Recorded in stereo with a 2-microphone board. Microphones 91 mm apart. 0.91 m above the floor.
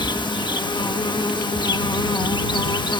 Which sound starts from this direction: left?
An insect, at 0.0 s.